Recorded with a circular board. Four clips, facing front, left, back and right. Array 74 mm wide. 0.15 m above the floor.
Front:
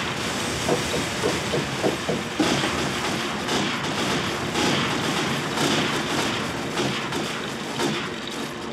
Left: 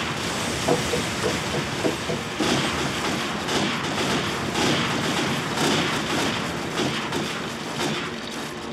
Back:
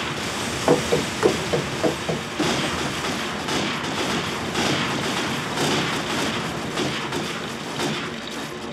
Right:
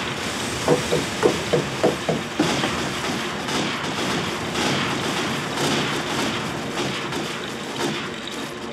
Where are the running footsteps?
165° right, 0.8 m; by 2.8 s 70° right, 1.3 m.